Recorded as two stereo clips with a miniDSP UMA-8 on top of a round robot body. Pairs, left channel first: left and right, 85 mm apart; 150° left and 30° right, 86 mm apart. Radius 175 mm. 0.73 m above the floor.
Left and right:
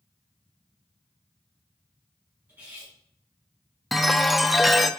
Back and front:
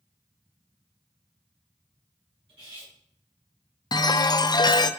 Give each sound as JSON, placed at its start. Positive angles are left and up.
{"t": 2.5, "sound": "cutlery clinking", "azimuth_deg": -20, "distance_m": 4.5}
{"t": 3.9, "sound": "a chime", "azimuth_deg": 180, "distance_m": 0.7}